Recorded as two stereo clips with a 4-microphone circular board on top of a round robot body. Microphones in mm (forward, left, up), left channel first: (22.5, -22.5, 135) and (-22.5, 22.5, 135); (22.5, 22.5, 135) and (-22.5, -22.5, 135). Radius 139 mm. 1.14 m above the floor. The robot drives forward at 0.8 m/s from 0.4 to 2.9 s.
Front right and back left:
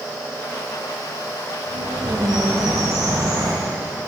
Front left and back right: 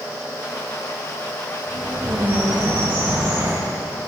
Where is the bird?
150° left, 1.2 m; by 3.5 s 165° left, 2.0 m.